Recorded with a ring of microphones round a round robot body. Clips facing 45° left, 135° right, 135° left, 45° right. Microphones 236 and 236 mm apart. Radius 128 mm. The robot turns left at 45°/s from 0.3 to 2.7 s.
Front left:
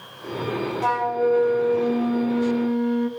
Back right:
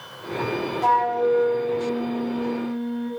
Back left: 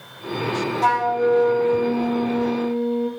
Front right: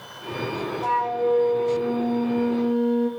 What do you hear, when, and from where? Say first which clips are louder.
0.8 s a flute: even, back left 3 dB; 125° left, 0.8 m; by 3.1 s 40° left, 0.8 m